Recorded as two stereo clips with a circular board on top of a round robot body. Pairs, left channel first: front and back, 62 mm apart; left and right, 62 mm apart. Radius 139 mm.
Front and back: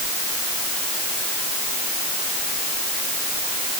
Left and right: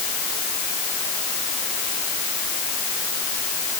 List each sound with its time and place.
Only background noise.